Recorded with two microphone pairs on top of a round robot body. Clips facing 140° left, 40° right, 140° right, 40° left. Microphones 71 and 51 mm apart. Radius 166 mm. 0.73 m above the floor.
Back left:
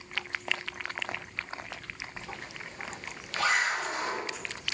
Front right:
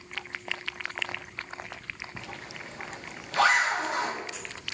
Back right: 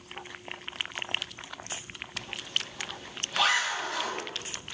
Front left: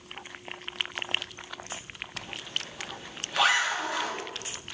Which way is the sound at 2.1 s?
40° right.